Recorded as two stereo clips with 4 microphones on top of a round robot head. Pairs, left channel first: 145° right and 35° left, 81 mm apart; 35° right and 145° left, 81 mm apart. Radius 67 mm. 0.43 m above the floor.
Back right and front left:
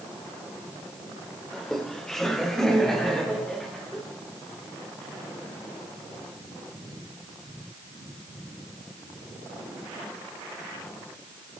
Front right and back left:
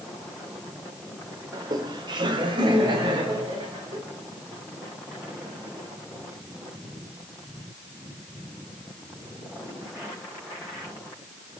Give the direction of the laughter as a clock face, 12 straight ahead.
8 o'clock.